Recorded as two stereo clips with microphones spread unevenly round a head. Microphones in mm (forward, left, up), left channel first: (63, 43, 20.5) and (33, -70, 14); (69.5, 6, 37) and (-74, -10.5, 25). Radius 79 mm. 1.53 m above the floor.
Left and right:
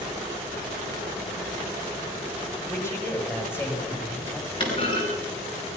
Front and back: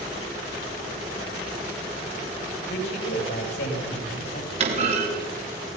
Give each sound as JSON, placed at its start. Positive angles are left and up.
{"t": 2.7, "sound": "a man speaking", "azimuth_deg": 10, "distance_m": 8.0}
{"t": 4.6, "sound": "a clunk", "azimuth_deg": 135, "distance_m": 5.5}